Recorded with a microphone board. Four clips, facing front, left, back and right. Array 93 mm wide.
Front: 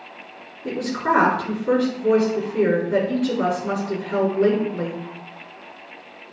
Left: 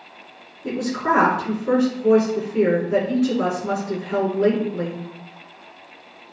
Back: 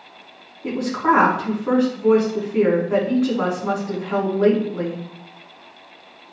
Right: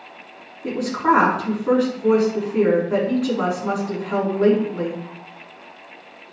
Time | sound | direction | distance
0.6 | a woman speaking | 150° right | 5.5 m